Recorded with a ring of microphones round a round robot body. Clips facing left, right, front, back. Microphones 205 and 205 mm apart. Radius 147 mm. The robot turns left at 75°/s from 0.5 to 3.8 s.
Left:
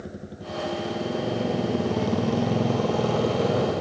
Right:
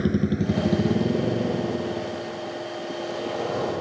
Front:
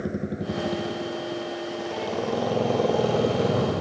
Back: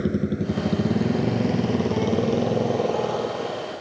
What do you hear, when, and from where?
0.0 s a motorcycle: 115° right; by 3.8 s 20° left